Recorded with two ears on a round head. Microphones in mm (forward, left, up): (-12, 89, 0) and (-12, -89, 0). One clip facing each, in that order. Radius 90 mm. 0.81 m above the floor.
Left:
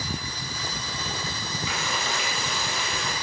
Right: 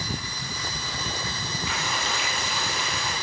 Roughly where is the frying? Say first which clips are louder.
Even; left.